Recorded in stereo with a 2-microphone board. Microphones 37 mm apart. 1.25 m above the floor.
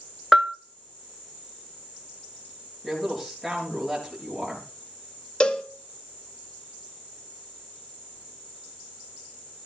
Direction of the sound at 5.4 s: 30° left (ahead or behind).